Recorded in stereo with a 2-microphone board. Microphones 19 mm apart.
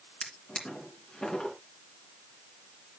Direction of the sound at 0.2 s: 75° left (ahead or behind).